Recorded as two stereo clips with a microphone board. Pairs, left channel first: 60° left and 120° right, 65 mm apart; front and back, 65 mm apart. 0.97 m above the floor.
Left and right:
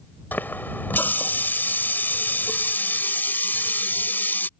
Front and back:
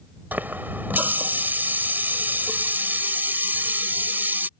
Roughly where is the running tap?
Behind left.